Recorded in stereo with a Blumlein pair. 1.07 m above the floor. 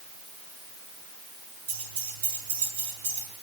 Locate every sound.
1.7 s keys jangling: 55° right, 9.5 m; by 3.3 s 60° right, 9.5 m